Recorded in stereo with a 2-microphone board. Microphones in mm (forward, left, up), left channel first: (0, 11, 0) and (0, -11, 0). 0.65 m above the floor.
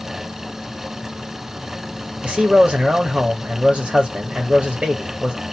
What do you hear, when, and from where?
2.2 s a man speaking: 45° right (ahead or behind), 1.1 m